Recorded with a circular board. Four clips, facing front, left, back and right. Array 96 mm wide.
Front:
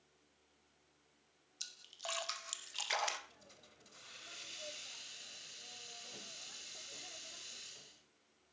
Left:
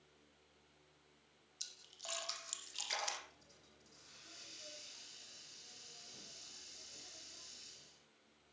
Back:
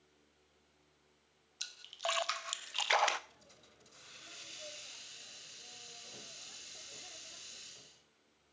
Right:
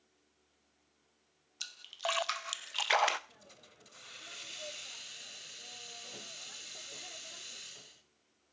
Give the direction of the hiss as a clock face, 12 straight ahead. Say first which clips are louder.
Right 7 dB, even; 3 o'clock.